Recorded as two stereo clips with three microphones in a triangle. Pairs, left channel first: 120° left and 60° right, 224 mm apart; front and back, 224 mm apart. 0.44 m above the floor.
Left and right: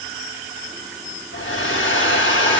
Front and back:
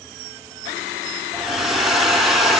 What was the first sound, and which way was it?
A hair dryer, 90° left.